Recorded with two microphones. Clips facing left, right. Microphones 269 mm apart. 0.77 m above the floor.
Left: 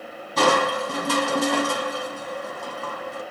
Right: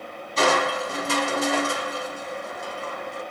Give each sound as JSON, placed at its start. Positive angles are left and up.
{"t": 0.4, "sound": "crushing", "side_deg": 60, "distance_m": 2.0}